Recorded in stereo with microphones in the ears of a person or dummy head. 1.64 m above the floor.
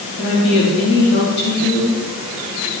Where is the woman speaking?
55° left (ahead or behind), 4.5 m.